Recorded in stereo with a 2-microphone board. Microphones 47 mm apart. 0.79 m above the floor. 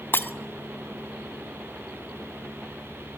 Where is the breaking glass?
50° left (ahead or behind), 1.0 m.